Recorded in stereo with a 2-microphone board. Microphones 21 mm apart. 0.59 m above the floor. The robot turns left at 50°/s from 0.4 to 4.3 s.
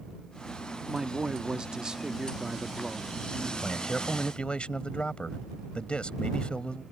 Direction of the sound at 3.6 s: 150° left.